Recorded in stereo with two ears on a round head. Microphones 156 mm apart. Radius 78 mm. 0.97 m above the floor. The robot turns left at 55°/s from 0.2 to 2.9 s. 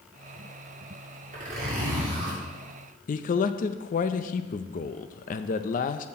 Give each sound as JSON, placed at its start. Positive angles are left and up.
{"t": 1.3, "sound": "a zipper", "azimuth_deg": -45, "distance_m": 3.0}
{"t": 3.1, "sound": "a man speaking", "side_deg": 50, "distance_m": 0.6}